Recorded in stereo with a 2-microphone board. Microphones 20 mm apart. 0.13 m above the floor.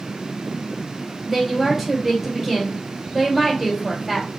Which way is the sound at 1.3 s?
5° right (ahead or behind).